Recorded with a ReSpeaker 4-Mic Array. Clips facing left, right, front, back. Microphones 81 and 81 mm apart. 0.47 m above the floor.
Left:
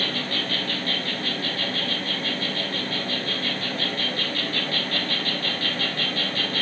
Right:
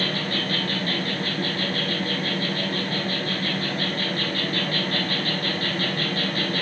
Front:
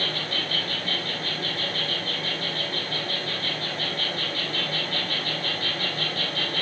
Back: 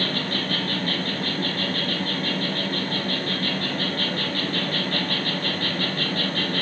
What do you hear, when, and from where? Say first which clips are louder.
0.0 s an insect: right 2 dB, back 4 dB; 140° right, 1.3 m